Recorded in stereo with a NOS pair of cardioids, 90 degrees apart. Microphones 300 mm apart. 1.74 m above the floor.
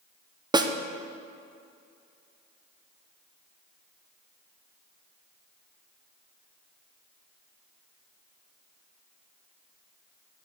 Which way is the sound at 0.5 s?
15° right.